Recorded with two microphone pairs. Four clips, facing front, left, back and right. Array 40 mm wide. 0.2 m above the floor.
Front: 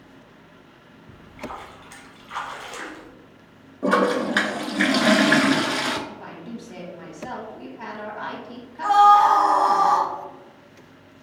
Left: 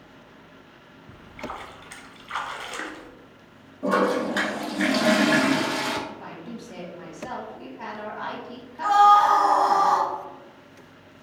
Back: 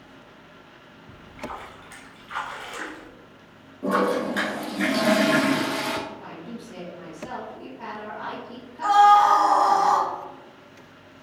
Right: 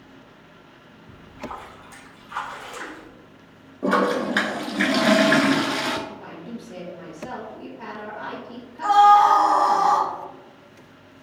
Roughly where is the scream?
Behind right.